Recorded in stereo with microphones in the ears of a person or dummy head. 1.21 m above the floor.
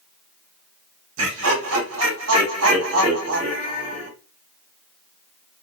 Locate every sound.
1.2 s laughter: 80° right, 1.7 m